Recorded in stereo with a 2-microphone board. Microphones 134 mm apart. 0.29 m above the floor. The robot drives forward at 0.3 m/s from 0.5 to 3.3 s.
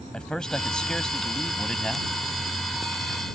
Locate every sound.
0.1 s a man speaking: 5° left (ahead or behind)